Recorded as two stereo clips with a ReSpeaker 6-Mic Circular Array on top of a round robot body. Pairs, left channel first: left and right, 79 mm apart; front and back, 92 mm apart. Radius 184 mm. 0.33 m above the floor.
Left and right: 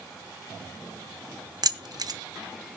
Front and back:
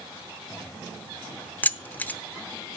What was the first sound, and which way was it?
Keys jangling, 70° right.